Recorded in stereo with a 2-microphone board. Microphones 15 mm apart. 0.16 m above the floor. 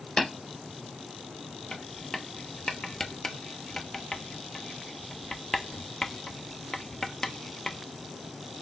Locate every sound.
0.2 s tapping: 35° left (ahead or behind), 2.5 m
1.7 s writing: 30° left (ahead or behind), 0.5 m